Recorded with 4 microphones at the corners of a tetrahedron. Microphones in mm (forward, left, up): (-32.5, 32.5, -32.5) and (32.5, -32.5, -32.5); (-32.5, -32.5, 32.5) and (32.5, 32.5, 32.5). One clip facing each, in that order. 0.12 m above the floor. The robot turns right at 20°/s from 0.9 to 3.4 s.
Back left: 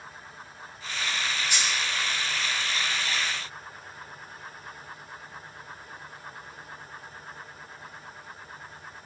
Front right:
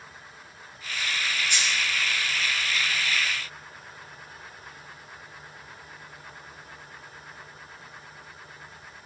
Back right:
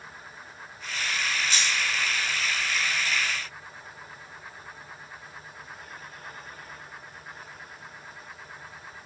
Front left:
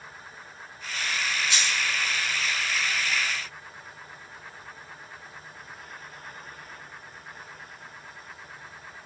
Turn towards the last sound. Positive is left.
turn(degrees=-110)